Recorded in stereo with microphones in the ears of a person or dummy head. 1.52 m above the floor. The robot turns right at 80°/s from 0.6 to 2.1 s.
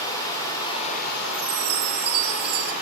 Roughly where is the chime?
Right.